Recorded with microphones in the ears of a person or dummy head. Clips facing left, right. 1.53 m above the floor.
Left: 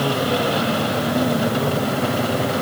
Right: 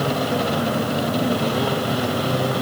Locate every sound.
Only background noise.